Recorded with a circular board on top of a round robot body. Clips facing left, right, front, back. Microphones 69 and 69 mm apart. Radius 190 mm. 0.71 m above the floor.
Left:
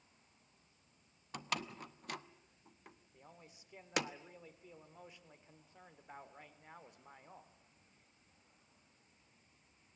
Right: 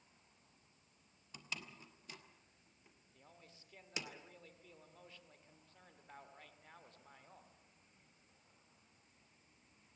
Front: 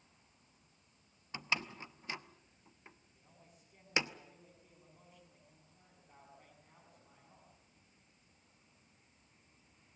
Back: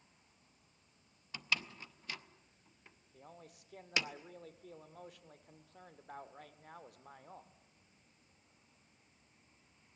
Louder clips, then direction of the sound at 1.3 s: Left 9 dB, front 1 dB; 65° left.